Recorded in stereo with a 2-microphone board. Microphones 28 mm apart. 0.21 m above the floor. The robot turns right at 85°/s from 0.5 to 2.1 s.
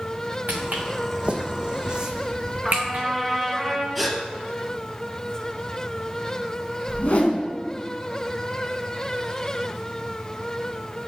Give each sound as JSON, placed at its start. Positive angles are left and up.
{"t": 0.5, "sound": "footsteps", "side_deg": -75, "distance_m": 1.1}
{"t": 2.6, "sound": "a trumpet", "side_deg": 0, "distance_m": 1.2}
{"t": 4.0, "sound": "a gasp", "side_deg": 0, "distance_m": 1.5}
{"t": 6.9, "sound": "a whoosh", "side_deg": 55, "distance_m": 0.9}